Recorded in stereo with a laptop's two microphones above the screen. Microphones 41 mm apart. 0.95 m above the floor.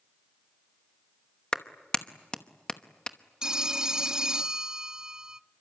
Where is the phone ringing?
15° right (ahead or behind), 0.6 m.